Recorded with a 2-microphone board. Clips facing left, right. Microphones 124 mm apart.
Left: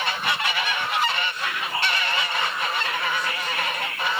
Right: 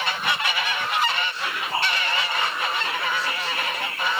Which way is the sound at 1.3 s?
30° right (ahead or behind).